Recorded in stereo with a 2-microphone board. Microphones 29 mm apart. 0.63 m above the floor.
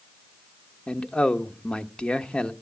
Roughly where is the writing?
I don't hear writing.